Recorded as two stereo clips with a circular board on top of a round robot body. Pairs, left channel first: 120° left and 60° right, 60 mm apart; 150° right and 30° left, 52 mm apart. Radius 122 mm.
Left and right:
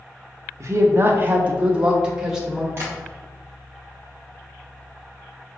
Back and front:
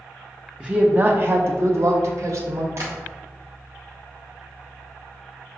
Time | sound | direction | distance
0.6 | a woman speaking | 40° right | 0.6 m
2.8 | tapping | 5° right | 0.7 m